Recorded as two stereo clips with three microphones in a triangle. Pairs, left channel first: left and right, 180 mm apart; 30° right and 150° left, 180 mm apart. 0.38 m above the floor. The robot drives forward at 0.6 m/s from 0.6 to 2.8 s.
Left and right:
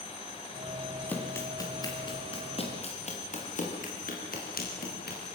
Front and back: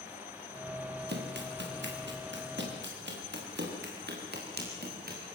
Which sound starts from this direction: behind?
Running footsteps, at 1.1 s.